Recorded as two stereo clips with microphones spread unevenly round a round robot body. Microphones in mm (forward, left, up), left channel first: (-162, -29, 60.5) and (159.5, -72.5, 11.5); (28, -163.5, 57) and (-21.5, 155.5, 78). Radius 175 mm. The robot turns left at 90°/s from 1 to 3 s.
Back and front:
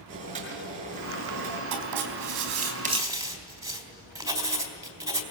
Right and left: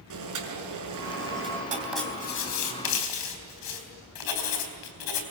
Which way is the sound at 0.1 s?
65° left.